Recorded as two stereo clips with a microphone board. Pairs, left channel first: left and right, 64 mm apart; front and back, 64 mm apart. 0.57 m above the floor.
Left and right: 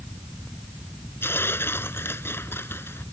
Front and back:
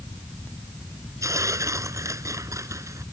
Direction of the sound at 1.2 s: 140° left.